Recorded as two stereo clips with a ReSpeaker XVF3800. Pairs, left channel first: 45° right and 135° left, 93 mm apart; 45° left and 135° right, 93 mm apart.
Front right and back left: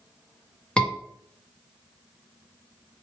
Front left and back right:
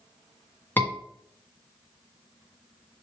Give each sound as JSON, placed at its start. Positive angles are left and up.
{"t": 0.8, "sound": "a scream", "azimuth_deg": 20, "distance_m": 1.5}